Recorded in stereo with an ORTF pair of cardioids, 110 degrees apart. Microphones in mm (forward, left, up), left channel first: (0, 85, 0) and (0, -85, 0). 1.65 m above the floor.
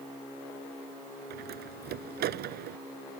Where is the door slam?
70° right.